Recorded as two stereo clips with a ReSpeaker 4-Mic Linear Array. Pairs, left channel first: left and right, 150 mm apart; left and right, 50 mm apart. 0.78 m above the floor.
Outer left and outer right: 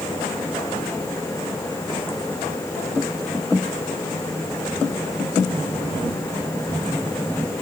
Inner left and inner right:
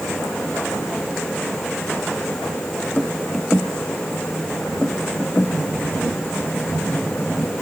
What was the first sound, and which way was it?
Only background noise.